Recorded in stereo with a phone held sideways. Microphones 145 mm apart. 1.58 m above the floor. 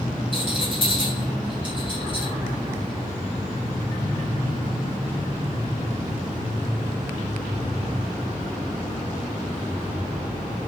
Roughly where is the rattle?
Right.